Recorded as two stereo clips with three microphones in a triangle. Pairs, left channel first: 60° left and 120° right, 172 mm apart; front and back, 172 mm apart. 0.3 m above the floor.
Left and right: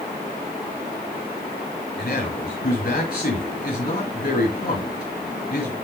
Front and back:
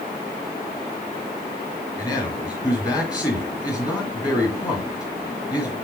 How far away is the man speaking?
About 4 m.